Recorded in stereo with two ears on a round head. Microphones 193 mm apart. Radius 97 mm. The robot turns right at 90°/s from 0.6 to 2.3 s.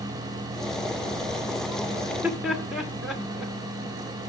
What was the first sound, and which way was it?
Laughter, 25° right (ahead or behind).